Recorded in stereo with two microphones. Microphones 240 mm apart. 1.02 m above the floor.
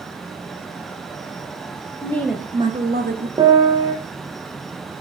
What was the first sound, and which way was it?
A woman speaking, 15° left (ahead or behind).